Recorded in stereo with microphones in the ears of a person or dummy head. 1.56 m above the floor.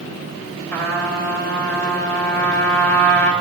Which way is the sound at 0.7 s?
10° left (ahead or behind).